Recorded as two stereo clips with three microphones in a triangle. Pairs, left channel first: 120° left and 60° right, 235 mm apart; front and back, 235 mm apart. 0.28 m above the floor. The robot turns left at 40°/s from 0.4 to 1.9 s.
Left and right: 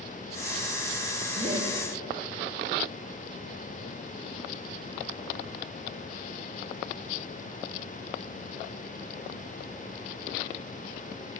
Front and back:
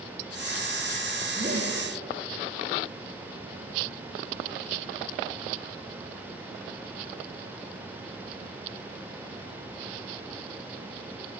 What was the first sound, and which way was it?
Laughter, 120° right.